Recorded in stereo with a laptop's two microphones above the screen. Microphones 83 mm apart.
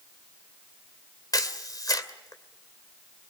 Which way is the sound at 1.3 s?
45° left (ahead or behind).